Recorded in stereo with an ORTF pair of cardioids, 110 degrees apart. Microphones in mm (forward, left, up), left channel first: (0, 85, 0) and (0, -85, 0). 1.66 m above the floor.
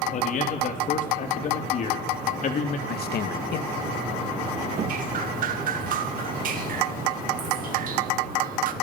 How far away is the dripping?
About 2 m.